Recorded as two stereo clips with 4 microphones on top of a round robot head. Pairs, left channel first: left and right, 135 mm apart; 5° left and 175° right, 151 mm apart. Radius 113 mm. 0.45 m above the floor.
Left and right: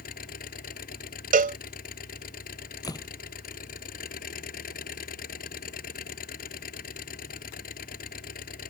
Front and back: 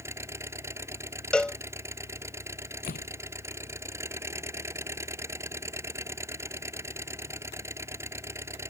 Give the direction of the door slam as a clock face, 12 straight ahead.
11 o'clock.